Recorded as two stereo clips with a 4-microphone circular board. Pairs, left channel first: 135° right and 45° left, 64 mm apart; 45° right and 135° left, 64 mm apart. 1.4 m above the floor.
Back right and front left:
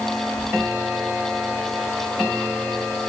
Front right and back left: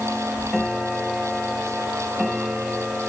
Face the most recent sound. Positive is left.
No sound to turn to.